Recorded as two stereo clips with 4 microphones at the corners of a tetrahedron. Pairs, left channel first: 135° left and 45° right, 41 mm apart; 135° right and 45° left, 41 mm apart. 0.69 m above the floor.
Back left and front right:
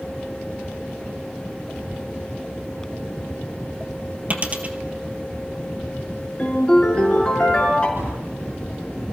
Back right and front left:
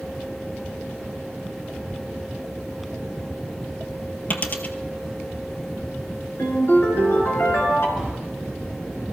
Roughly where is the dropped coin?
Right.